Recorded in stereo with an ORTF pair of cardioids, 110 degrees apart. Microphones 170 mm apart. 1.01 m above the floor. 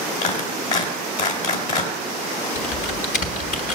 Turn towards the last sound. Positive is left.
turn(degrees=50)